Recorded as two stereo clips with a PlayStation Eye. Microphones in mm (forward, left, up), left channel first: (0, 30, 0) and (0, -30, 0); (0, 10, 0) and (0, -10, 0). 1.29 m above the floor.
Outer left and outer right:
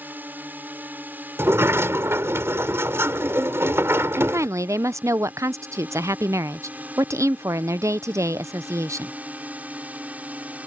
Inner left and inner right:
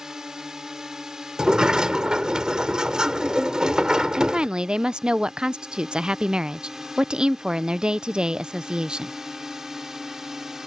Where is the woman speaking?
60° right (ahead or behind).